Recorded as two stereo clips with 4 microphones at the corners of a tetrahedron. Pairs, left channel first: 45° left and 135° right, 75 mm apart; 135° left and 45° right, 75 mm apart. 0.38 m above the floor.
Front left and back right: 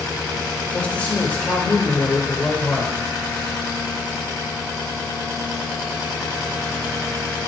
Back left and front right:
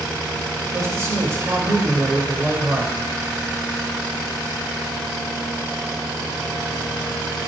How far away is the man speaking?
About 1.0 m.